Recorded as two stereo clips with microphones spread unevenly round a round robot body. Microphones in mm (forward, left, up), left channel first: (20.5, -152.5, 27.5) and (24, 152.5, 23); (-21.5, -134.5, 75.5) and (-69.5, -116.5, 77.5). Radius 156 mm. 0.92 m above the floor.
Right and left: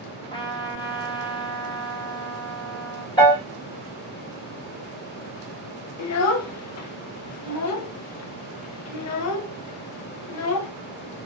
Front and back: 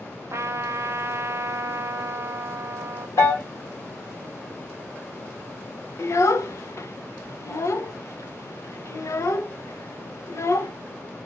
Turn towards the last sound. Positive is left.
turn(degrees=-50)